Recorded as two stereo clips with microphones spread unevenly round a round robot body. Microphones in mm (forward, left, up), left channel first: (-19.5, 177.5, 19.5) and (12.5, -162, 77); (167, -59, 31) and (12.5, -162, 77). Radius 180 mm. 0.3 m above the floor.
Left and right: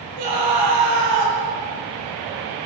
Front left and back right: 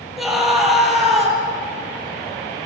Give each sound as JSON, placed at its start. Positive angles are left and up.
{"t": 0.2, "sound": "a scream", "azimuth_deg": -55, "distance_m": 8.0}